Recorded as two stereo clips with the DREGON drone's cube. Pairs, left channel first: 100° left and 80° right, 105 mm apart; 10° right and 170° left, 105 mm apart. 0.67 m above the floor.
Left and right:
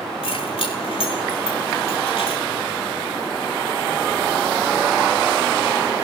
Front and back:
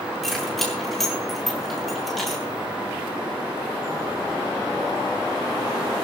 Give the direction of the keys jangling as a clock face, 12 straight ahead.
9 o'clock.